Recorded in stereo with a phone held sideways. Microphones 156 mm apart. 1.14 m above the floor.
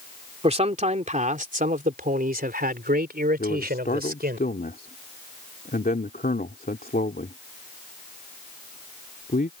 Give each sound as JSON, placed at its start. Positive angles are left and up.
{"t": 0.4, "sound": "a man speaking", "side_deg": -40}
{"t": 3.4, "sound": "a man speaking", "side_deg": 70}